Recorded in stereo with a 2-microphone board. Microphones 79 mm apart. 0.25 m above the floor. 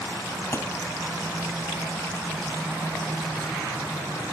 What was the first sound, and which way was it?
A thud, 35° left (ahead or behind).